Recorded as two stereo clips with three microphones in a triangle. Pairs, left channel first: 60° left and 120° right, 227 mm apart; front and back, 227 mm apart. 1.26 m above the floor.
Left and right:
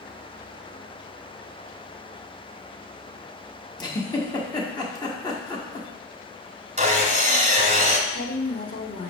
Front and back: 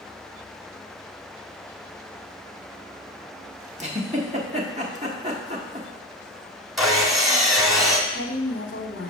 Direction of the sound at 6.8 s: 90° right.